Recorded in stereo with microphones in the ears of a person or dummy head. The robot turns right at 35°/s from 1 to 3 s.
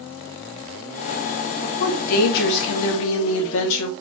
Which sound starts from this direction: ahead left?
A woman speaking, at 1.6 s.